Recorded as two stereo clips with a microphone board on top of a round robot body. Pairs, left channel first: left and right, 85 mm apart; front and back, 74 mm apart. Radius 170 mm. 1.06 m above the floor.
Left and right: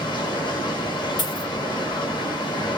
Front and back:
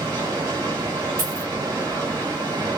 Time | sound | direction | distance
0.0 | running water | 130° left | 2.5 m
1.2 | a dropped coin | 125° left | 2.5 m